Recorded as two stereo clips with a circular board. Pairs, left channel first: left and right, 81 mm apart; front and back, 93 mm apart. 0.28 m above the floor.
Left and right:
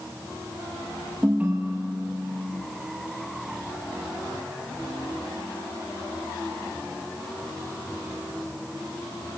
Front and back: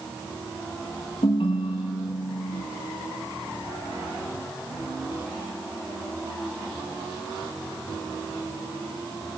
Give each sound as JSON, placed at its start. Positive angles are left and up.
{"t": 1.2, "sound": "a ringtone", "azimuth_deg": -20, "distance_m": 6.0}